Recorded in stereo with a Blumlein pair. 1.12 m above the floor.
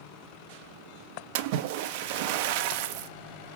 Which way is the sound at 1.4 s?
50° right.